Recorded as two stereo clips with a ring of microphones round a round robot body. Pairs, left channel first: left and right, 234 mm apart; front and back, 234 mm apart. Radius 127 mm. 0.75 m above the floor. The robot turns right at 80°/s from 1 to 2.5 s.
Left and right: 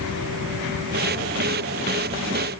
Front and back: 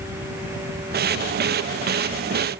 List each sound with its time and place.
Only background noise.